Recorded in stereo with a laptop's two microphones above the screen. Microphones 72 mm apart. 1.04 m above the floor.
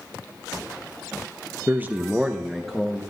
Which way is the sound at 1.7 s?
30° right (ahead or behind).